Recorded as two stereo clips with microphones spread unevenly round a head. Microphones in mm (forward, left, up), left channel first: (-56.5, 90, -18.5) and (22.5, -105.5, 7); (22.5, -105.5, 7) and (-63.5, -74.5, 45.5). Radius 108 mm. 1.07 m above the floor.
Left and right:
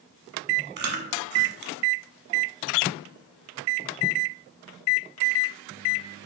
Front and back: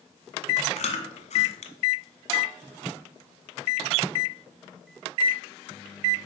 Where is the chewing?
30° right, 1.1 m.